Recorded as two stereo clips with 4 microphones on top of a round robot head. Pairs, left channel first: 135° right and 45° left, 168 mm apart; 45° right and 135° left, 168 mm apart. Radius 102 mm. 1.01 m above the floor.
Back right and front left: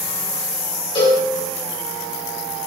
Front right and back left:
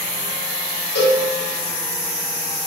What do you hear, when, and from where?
0.9 s a cowbell: 70° right, 3 m